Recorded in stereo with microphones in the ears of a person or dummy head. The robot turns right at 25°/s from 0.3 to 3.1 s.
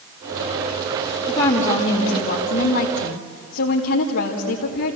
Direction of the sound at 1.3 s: 20° left.